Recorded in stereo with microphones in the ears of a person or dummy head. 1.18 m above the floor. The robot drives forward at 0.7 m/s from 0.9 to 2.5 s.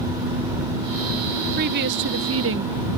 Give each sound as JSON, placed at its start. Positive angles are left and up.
{"t": 1.6, "sound": "a woman speaking", "side_deg": -50}